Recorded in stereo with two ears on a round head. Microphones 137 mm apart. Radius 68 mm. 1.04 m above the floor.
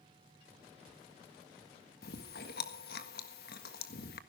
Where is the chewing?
70° left (ahead or behind), 1.5 m.